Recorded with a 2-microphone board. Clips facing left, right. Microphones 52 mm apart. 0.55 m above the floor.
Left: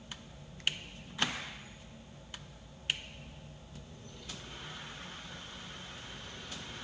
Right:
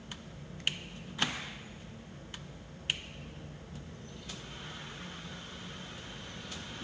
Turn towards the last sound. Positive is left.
turn(degrees=-55)  # may be behind; listen again after turning